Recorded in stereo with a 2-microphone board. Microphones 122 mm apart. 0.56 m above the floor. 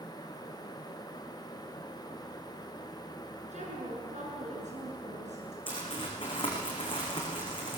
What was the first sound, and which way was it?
A woman speaking, 75° right (ahead or behind).